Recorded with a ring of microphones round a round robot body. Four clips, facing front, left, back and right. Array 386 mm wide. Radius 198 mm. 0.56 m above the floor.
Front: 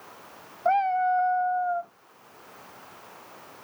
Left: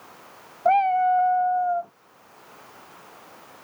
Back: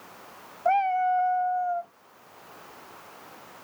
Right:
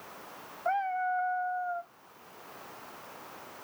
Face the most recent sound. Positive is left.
turn(degrees=85)